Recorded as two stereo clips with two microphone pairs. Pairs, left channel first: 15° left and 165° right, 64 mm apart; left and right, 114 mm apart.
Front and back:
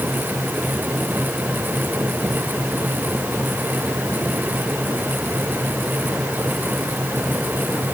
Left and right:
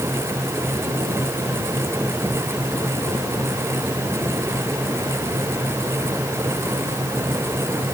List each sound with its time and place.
Only background noise.